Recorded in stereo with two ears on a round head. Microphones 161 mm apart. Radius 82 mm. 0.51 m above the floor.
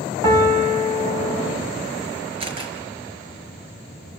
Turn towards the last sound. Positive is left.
turn(degrees=-35)  # may be behind; listen again after turning